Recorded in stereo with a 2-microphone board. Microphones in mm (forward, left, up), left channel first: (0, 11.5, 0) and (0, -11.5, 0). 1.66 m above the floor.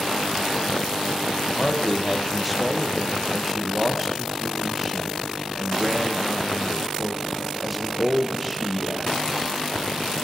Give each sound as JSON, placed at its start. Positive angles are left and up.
{"t": 1.6, "sound": "a man speaking", "side_deg": -5, "distance_m": 0.8}